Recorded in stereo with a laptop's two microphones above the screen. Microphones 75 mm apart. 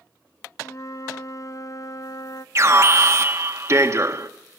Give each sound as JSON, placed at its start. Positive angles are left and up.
{"t": 0.6, "sound": "a flute", "side_deg": 45, "distance_m": 0.8}
{"t": 2.5, "sound": "an alarm", "side_deg": -40, "distance_m": 1.5}